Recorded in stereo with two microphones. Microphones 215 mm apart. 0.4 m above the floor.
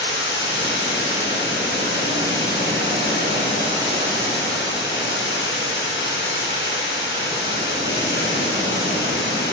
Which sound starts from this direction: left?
Running water, at 0.0 s.